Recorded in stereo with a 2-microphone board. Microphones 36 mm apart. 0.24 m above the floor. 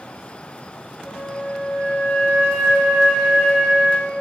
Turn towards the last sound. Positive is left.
turn(degrees=65)  # may be behind; listen again after turning